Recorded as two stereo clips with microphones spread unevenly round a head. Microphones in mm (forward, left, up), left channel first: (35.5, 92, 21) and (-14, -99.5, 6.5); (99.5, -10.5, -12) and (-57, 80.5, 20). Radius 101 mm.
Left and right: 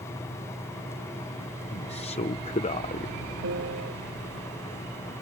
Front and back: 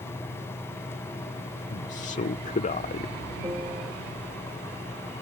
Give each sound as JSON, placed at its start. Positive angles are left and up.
{"t": 1.7, "sound": "a man speaking", "azimuth_deg": 15}
{"t": 3.4, "sound": "a piano", "azimuth_deg": -135}